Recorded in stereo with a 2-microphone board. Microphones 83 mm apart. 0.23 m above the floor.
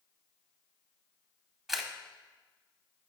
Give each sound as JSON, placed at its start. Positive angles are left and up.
{"t": 1.7, "sound": "a camera shutter", "side_deg": -5, "distance_m": 0.9}